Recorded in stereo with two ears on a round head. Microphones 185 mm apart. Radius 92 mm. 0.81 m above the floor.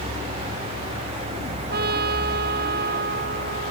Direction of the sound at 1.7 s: 50° right (ahead or behind).